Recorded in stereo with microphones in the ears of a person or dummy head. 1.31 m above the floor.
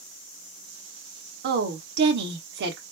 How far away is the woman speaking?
About 1.4 m.